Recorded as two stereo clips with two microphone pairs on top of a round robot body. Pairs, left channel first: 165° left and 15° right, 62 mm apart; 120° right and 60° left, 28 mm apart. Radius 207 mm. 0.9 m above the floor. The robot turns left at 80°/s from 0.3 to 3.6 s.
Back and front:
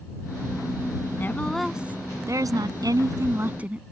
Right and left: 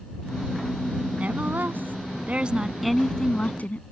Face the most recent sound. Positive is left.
turn(degrees=-85)